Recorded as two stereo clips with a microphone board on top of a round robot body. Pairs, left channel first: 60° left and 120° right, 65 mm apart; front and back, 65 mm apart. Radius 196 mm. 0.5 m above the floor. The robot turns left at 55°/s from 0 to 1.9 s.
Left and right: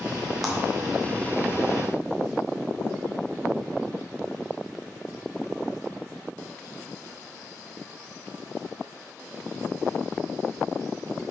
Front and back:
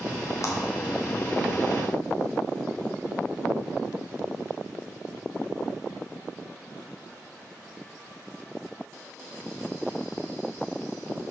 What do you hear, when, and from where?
0.4 s a clap: 35° right, 2 m; by 0.6 s 40° right, 2 m